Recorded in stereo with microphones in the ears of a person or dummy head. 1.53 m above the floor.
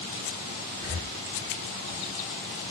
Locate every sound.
0.8 s breathing: 15° right (ahead or behind), 1.4 m